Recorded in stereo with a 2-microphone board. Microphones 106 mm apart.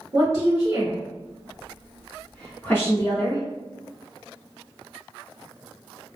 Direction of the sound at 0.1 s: 30° right (ahead or behind).